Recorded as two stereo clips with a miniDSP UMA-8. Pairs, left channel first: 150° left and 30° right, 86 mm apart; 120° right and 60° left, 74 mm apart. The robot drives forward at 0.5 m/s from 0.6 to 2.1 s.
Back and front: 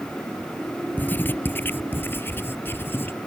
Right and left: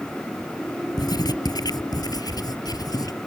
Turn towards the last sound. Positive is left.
turn(degrees=-145)